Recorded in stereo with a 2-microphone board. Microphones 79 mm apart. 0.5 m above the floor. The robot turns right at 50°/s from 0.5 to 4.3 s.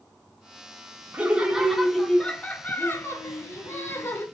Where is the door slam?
I don't hear a door slam.